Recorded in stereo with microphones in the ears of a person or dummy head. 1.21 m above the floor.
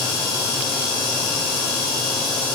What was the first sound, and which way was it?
Only background noise.